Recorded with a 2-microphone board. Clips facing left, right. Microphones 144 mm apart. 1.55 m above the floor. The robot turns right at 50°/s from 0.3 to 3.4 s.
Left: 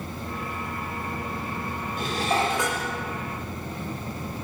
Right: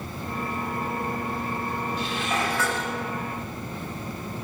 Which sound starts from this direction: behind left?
Dishes clattering, at 2.0 s.